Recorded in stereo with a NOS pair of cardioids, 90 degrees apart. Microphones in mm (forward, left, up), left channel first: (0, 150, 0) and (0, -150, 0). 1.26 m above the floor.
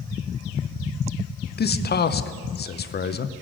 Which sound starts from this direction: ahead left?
A man speaking, at 1.6 s.